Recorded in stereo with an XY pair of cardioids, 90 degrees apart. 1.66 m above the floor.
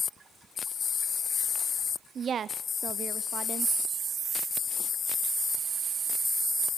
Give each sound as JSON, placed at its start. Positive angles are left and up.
{"t": 2.1, "sound": "a woman speaking", "azimuth_deg": -60, "distance_m": 0.6}